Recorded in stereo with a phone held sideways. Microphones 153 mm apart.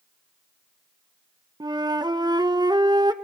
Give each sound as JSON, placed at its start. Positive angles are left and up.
{"t": 1.6, "sound": "a flute", "side_deg": -25, "distance_m": 0.9}